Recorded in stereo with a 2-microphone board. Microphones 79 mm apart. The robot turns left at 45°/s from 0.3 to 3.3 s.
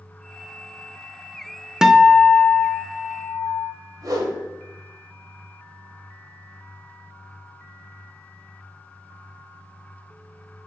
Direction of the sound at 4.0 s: 50° right (ahead or behind).